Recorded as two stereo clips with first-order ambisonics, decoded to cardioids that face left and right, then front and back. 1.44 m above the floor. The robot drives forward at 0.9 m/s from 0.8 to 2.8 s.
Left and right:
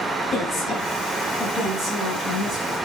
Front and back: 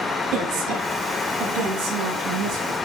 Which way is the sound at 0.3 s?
155° left.